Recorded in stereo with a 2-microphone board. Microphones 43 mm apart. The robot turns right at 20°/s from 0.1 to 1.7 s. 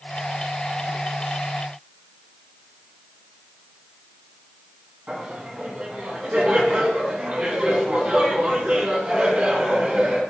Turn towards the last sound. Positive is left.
turn(degrees=-30)  # may be behind; listen again after turning